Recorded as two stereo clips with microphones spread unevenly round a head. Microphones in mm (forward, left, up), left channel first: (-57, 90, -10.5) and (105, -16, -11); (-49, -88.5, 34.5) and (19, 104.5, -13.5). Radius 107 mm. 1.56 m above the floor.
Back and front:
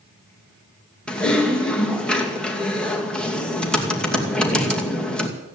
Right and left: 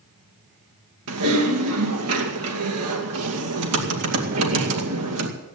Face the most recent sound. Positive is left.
turn(degrees=60)